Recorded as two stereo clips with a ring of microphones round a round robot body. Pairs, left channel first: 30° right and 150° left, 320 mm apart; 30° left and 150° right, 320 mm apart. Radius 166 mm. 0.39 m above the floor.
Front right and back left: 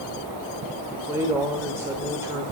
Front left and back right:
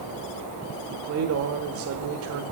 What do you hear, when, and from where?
0.9 s a man speaking: 130° right, 1.3 m